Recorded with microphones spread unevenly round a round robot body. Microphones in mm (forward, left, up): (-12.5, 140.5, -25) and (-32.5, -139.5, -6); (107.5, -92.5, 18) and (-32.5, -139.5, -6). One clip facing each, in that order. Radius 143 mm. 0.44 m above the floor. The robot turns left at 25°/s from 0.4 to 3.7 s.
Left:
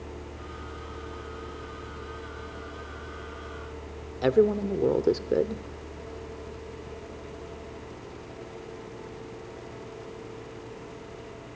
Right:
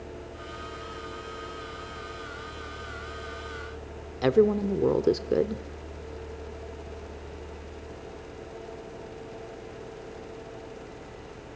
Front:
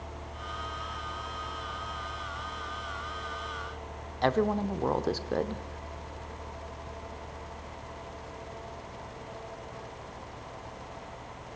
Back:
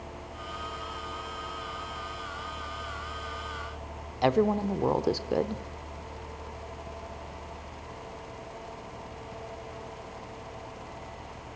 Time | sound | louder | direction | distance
4.2 | a woman speaking | even, back 2 dB | straight behind | 0.8 m